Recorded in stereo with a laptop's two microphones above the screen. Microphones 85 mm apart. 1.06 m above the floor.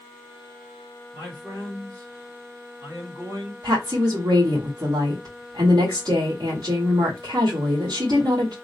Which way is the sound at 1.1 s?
30° right (ahead or behind).